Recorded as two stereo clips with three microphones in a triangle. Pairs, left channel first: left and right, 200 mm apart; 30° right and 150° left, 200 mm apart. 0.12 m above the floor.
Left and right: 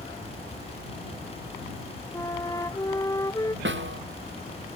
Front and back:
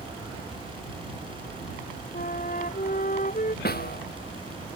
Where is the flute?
15° left.